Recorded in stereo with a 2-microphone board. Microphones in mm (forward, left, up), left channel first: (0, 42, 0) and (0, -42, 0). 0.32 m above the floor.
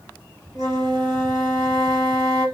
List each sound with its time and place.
0.6 s a flute: 50° right (ahead or behind), 1.8 m